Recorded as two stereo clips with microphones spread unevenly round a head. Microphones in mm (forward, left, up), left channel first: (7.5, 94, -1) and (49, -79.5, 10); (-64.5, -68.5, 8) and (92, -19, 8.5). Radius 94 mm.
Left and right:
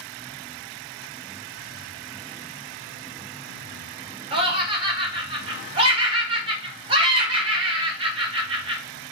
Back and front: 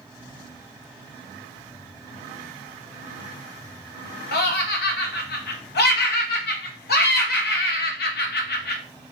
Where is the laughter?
140° right, 1.1 m.